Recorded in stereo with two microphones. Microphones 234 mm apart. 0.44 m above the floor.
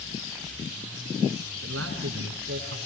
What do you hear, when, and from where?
1.6 s a man speaking: 75° right (ahead or behind), 5 m